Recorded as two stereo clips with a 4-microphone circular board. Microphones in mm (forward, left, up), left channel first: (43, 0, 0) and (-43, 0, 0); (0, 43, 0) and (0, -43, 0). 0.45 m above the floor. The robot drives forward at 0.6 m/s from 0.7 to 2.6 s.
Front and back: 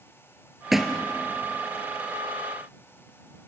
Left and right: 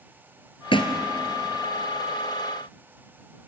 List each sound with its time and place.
0.7 s a thud: 90° left, 2 m; by 1.0 s 95° left, 2 m